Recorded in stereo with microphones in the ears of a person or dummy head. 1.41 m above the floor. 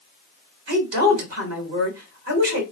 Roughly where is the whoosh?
I don't hear a whoosh.